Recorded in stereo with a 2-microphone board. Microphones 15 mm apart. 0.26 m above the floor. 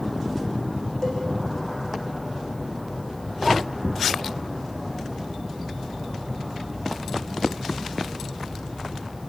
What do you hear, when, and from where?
1.0 s a cowbell: 40° left (ahead or behind), 7.5 m